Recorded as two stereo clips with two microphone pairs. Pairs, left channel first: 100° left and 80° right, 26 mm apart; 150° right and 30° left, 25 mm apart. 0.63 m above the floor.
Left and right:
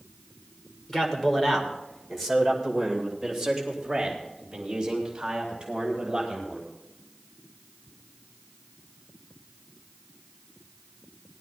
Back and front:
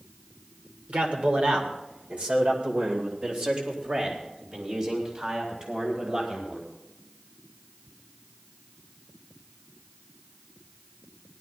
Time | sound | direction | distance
0.9 | a man speaking | 40° left | 2.5 m